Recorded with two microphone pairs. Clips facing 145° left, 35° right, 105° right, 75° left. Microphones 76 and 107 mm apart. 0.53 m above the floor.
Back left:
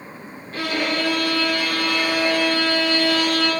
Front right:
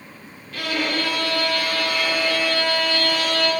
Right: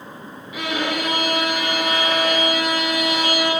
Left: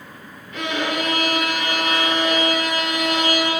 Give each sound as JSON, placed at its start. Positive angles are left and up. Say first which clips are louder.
{"t": 0.5, "sound": "a violin", "louder": "back left 1 dB, even", "azimuth_deg": 180, "distance_m": 1.4}